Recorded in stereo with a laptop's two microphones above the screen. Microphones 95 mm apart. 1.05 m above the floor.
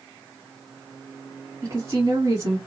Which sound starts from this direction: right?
A woman speaking, at 1.6 s.